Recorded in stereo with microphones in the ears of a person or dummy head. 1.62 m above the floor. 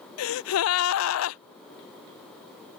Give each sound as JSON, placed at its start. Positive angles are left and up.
{"t": 0.2, "sound": "a gasp", "side_deg": 80}